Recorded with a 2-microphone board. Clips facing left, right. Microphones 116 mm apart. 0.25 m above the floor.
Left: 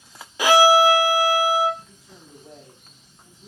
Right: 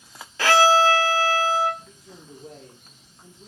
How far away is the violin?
About 0.5 m.